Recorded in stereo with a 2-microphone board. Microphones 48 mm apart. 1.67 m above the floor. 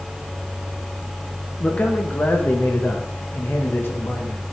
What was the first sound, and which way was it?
A man speaking, 30° left (ahead or behind).